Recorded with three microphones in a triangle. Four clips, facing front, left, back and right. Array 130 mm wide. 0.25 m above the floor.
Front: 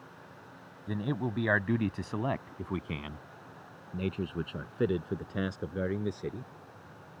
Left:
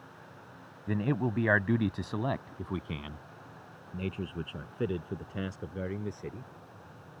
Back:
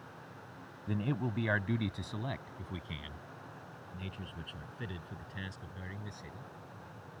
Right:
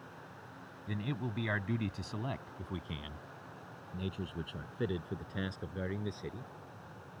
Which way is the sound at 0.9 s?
80° left.